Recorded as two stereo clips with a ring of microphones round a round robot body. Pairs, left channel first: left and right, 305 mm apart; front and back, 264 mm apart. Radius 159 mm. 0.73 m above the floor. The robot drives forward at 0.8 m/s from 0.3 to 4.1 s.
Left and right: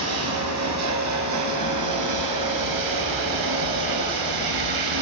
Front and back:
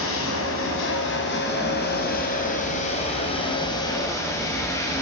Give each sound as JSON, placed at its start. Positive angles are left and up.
{"t": 0.0, "sound": "running water", "azimuth_deg": -50, "distance_m": 6.0}